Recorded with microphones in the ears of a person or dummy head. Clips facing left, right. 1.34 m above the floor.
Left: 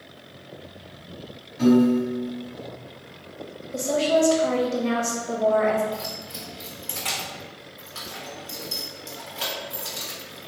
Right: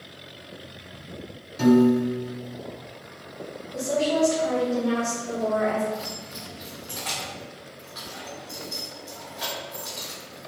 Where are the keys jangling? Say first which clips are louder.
Even; 35° left (ahead or behind), 1.3 m.